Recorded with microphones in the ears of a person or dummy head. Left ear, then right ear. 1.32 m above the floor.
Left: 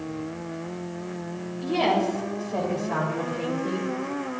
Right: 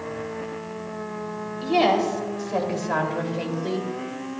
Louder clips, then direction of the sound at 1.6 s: Right 3 dB; 30° right (ahead or behind).